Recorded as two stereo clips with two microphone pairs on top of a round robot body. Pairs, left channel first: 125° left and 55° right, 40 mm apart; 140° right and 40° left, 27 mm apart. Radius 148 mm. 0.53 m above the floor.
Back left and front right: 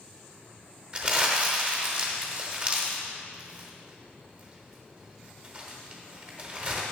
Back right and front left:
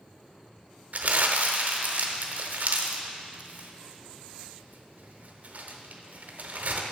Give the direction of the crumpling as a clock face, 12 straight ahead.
12 o'clock.